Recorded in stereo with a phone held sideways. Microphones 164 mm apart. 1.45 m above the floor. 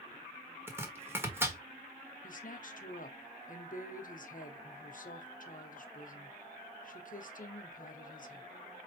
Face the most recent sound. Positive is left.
turn(degrees=55)  # may be behind; listen again after turning